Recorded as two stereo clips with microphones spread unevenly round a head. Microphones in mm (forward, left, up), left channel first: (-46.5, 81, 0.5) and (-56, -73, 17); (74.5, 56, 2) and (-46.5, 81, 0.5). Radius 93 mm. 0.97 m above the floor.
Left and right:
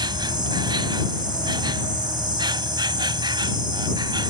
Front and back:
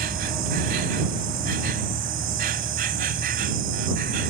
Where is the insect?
155° right.